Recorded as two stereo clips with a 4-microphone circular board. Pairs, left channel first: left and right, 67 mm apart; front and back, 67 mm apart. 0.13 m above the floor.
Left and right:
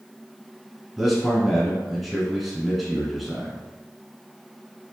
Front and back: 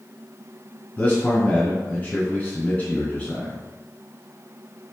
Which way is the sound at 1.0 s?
Straight ahead.